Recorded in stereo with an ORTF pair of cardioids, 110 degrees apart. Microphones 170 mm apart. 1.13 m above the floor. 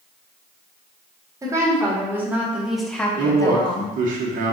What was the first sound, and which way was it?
A woman speaking, 20° right.